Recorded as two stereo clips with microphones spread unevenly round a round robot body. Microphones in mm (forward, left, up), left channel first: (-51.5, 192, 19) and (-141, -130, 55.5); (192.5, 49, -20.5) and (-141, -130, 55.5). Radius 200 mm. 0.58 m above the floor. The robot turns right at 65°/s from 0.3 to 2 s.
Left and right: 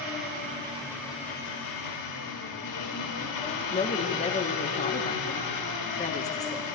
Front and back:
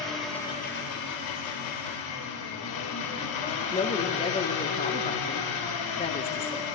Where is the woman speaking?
50° left, 1.0 m.